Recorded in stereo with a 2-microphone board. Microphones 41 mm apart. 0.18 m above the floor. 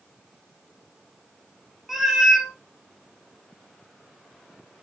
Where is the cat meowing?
10° right (ahead or behind), 0.6 m.